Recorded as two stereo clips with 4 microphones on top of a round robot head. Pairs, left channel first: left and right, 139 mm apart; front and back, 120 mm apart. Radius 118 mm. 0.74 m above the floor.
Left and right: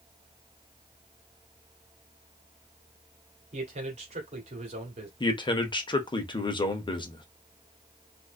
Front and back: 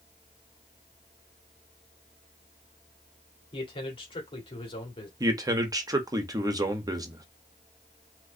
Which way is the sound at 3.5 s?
50° right.